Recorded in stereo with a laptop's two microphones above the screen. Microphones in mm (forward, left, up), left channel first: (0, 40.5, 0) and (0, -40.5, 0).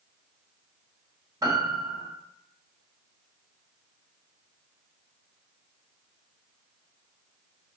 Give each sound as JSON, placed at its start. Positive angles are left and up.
{"t": 1.4, "sound": "a piano", "side_deg": -45, "distance_m": 1.1}